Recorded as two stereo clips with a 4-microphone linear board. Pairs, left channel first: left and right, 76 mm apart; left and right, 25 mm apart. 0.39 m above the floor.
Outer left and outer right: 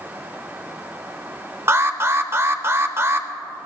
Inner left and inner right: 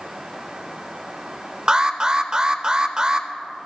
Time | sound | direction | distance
1.7 | an alarm | 35° right (ahead or behind) | 0.8 m